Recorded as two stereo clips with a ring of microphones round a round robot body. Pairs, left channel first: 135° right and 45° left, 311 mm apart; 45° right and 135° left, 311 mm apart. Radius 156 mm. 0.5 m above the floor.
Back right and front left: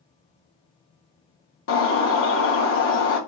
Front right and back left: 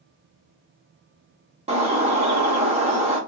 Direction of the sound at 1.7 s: 160° right.